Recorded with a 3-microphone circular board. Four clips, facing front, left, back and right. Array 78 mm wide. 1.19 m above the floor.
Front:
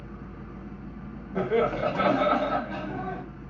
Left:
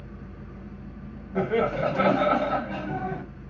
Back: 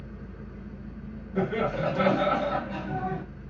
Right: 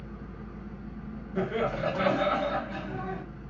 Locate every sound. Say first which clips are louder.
0.0 s an engine running: even, front 1 dB; straight ahead, 1.6 m
1.4 s laughter: left 5 dB, front 3 dB; 60° left, 1.5 m